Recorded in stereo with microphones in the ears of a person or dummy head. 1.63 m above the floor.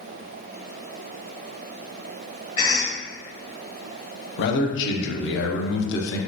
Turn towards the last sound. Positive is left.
turn(degrees=65)  # may be behind; listen again after turning